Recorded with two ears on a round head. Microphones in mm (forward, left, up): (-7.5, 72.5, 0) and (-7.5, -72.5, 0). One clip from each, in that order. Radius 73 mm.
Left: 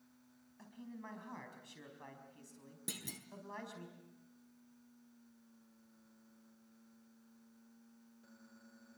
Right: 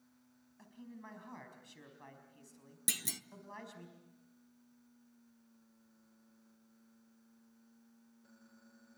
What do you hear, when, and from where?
0.6 s a man speaking: centre (ahead or behind), 4 m
2.9 s a clunk: 55° right (ahead or behind), 0.9 m